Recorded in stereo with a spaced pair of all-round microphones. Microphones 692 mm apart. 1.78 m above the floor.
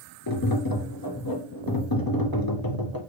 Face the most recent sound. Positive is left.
turn(degrees=30)  # may be behind; listen again after turning